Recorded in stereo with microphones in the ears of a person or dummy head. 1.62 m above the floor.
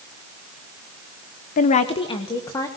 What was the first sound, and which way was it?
A woman speaking, 45° left (ahead or behind).